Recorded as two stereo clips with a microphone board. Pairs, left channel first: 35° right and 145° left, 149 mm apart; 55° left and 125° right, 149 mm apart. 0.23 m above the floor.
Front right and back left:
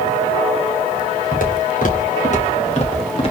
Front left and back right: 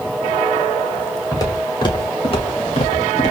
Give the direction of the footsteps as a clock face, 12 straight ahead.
12 o'clock.